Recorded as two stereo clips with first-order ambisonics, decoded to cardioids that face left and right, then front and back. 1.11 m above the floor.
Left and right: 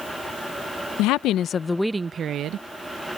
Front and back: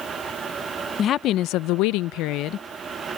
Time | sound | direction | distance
1.0 | a woman speaking | 60° left | ?